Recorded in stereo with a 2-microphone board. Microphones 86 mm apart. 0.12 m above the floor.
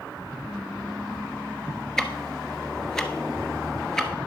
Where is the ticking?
5° left (ahead or behind), 1.2 m.